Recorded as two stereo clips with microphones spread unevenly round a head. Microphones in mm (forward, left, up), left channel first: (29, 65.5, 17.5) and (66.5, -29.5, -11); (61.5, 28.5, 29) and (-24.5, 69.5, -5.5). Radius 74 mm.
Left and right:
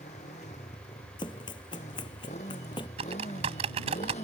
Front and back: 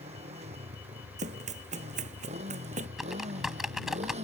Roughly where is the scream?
No scream in this recording.